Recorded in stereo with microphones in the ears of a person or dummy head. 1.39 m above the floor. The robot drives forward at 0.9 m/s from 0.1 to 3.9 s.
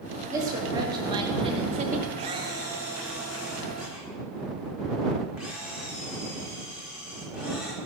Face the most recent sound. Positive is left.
turn(degrees=-10)  # may be behind; listen again after turning